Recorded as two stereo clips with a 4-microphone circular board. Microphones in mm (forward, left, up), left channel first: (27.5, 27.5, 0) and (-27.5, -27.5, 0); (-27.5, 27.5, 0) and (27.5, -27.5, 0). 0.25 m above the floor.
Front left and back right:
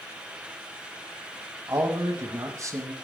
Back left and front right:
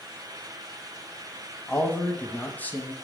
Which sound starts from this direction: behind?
A man speaking, at 1.7 s.